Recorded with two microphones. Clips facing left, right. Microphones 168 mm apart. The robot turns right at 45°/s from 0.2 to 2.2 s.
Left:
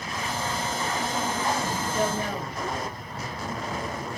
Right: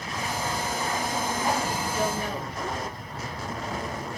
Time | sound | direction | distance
1.9 | a woman speaking | 50° left (ahead or behind) | 2 m